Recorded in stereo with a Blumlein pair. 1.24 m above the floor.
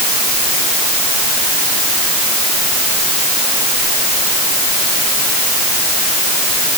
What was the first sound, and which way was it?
Only background noise.